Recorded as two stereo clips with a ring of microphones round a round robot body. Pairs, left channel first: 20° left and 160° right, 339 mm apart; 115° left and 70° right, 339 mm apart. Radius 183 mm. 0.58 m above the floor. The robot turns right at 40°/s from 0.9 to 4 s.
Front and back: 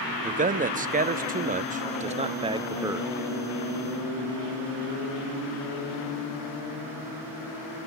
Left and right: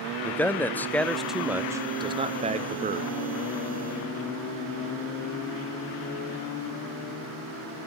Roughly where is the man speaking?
Behind.